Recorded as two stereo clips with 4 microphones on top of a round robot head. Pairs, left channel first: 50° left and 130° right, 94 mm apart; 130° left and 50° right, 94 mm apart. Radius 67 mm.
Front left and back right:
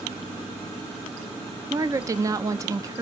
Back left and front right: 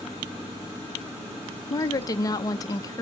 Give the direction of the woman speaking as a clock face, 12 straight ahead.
6 o'clock.